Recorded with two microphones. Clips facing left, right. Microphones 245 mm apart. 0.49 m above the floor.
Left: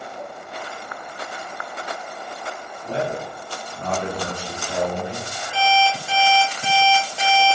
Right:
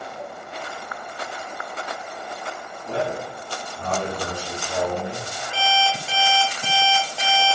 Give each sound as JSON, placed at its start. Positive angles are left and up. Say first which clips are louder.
{"t": 2.9, "sound": "a man speaking", "louder": "left 1 dB", "side_deg": 35, "distance_m": 1.3}
{"t": 5.5, "sound": "an alarm clock", "louder": "left 4 dB", "side_deg": 15, "distance_m": 0.9}